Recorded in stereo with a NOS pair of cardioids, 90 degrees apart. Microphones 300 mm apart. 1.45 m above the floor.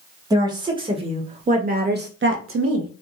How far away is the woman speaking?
About 2.0 m.